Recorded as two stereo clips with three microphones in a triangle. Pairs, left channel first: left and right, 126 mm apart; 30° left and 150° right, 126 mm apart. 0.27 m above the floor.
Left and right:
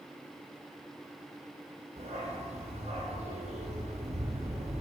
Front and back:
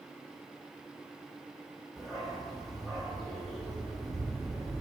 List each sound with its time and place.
2.0 s a dog barking: 60° right, 3 m